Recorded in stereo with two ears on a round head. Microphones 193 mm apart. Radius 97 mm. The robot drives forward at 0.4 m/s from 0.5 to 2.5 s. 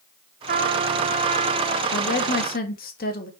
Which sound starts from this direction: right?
A trumpet, at 0.5 s.